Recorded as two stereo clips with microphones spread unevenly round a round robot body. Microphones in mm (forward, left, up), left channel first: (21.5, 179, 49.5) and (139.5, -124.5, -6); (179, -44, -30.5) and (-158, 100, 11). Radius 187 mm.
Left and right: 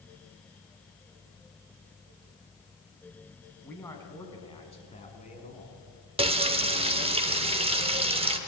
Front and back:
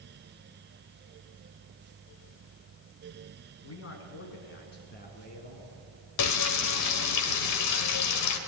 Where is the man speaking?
25° left, 4.5 m; by 5.8 s 45° left, 5.5 m.